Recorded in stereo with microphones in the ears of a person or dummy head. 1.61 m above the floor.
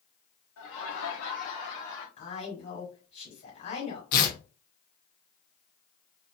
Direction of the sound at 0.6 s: 70° left (ahead or behind).